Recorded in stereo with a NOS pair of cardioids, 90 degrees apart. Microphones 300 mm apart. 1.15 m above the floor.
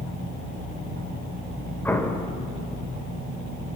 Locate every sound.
1.9 s an explosion: 5° left, 2.5 m